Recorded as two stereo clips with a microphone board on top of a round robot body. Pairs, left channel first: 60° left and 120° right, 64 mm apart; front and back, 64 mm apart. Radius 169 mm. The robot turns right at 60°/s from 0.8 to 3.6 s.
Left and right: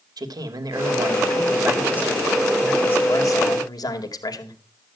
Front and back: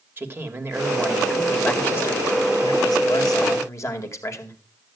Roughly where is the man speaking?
Behind right.